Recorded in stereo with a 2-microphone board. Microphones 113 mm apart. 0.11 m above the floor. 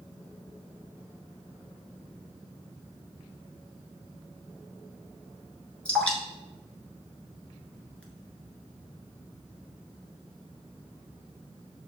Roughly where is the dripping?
Centre.